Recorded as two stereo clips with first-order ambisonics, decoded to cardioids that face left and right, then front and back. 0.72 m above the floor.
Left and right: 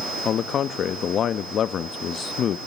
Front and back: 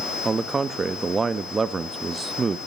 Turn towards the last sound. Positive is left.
turn(degrees=115)